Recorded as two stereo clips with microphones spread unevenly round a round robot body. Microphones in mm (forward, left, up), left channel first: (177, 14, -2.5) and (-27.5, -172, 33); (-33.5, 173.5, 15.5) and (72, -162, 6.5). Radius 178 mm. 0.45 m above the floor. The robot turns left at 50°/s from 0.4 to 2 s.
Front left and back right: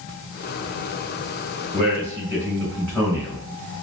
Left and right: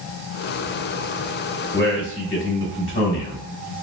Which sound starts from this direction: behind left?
A man speaking, at 1.7 s.